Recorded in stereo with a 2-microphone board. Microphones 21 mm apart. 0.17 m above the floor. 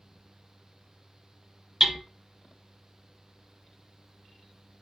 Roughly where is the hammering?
Right.